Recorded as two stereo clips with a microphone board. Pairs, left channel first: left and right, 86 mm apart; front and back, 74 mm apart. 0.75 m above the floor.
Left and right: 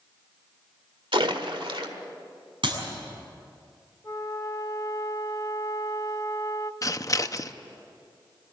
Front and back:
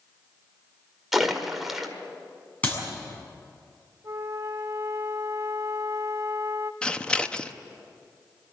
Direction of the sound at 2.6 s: 70° right.